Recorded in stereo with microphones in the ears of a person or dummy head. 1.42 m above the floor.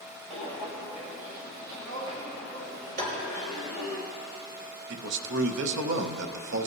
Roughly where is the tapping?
Right.